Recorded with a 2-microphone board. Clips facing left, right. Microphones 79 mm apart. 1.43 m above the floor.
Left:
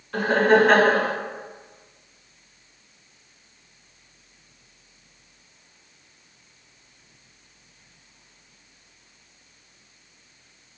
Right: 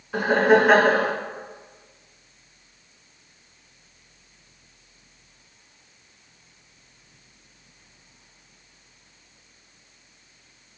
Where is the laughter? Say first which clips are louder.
Even; 10° right (ahead or behind), 0.6 m.